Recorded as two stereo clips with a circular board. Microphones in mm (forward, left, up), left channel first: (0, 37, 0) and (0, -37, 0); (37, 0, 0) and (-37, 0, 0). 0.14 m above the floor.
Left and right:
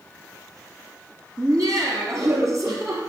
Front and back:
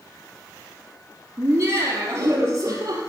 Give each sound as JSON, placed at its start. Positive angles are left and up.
{"t": 1.4, "sound": "laughter", "azimuth_deg": -125, "distance_m": 3.0}